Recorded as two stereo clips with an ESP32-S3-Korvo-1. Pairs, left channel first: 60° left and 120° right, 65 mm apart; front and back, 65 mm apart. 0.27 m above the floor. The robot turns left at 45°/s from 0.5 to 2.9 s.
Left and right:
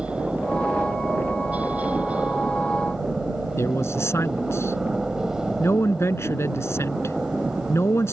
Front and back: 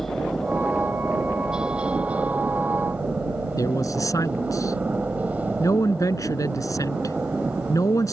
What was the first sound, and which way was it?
A helicopter, 75° right.